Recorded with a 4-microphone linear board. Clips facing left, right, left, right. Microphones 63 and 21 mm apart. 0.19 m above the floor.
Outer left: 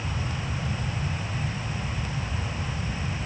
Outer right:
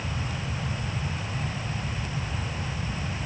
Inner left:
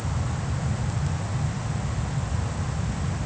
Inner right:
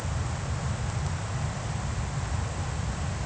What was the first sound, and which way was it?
Only background noise.